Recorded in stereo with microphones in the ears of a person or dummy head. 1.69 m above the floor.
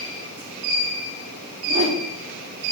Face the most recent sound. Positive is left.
turn(degrees=-35)  # may be behind; listen again after turning